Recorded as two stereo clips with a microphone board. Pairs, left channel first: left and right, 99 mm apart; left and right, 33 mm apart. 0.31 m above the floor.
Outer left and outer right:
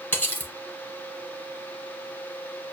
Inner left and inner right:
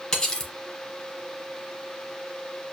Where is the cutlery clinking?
20° left (ahead or behind), 1.2 m.